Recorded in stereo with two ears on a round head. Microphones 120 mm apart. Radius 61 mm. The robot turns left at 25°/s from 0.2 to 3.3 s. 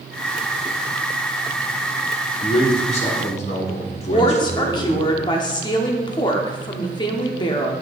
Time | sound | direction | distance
2.4 | a man speaking | 45° left (ahead or behind) | 1.4 m
4.1 | a woman speaking | 35° left (ahead or behind) | 1.0 m